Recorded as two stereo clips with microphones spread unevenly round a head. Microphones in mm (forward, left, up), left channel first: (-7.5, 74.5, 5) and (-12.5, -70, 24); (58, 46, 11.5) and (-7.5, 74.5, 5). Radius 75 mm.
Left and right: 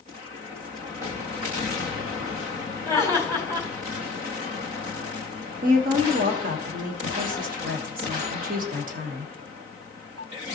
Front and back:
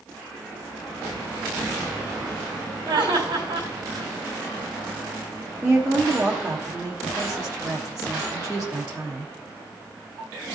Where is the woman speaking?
120° right, 1.2 m.